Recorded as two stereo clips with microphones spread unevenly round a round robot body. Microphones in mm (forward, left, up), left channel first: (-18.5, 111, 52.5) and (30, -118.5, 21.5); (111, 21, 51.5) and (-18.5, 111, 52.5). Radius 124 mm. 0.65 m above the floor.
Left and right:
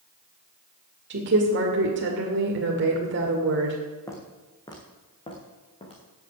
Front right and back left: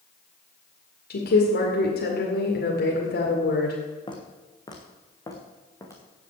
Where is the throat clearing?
No throat clearing in this recording.